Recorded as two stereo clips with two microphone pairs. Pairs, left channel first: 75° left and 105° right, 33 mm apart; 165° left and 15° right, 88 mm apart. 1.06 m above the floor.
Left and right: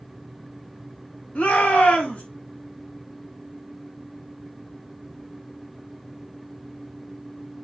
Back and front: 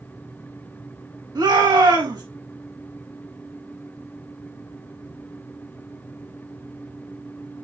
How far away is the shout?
About 5.5 m.